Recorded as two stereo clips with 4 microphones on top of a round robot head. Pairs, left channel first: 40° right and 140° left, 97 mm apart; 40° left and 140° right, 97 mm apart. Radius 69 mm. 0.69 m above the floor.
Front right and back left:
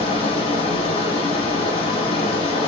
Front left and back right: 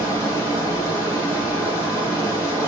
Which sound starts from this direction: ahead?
Running water, at 0.0 s.